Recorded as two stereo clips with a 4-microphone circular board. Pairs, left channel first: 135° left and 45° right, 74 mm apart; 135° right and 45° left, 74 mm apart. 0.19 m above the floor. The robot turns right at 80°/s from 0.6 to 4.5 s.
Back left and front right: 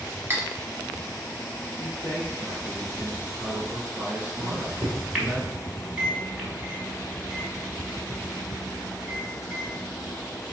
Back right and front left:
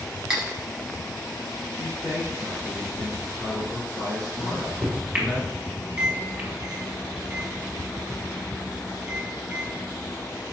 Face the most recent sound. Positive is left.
turn(degrees=10)